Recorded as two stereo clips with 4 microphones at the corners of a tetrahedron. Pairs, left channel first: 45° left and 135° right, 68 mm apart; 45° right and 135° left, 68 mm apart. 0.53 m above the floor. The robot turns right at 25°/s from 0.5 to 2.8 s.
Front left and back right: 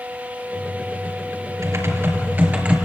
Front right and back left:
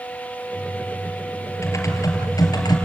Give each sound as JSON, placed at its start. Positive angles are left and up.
{"t": 1.6, "sound": "typing on a keyboard", "azimuth_deg": -90, "distance_m": 3.5}